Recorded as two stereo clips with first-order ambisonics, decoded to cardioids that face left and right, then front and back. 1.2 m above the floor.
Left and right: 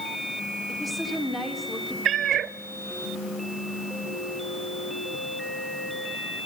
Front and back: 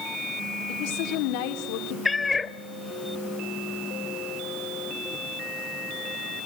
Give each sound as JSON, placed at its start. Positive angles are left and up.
{"t": 0.7, "sound": "a woman speaking", "azimuth_deg": 5, "distance_m": 3.0}
{"t": 2.0, "sound": "a cat meowing", "azimuth_deg": -70, "distance_m": 0.6}